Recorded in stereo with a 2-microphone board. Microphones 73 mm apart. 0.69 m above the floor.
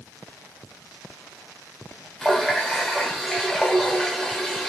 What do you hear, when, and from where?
2.2 s a running tap: 5° left (ahead or behind), 1.5 m